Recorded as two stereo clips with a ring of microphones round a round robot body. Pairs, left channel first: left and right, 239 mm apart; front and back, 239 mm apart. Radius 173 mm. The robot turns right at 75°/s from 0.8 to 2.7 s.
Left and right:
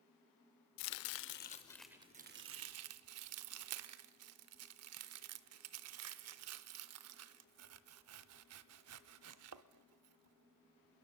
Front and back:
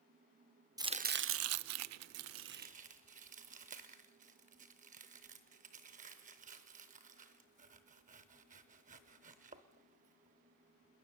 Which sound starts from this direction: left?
Chopping, at 0.8 s.